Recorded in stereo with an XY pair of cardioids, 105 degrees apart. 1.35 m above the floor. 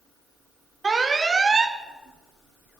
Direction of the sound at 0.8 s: 30° right.